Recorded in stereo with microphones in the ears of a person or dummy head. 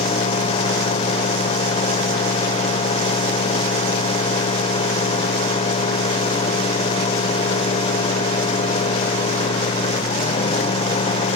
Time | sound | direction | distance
0.0 | a fan | 30° left (ahead or behind) | ?